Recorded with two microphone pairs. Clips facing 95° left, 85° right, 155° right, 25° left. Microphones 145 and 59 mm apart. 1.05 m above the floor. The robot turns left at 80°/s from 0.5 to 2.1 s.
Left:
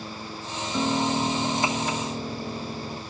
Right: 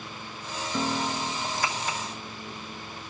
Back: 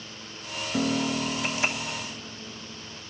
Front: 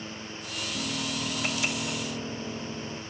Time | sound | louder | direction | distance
0.7 | a piano | left 5 dB, back 8 dB | straight behind | 0.8 m